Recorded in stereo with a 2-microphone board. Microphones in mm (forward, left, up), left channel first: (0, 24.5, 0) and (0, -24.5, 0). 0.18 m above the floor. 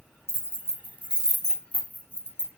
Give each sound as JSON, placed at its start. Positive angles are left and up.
{"t": 0.3, "sound": "keys jangling", "side_deg": -50, "distance_m": 1.2}